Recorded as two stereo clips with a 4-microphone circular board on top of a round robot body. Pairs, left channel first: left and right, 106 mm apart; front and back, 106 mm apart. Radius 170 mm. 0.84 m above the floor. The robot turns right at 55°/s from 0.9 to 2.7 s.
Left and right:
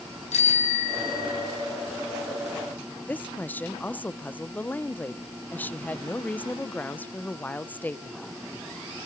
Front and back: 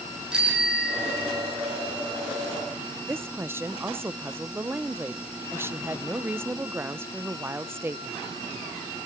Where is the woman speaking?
145° left, 0.7 m.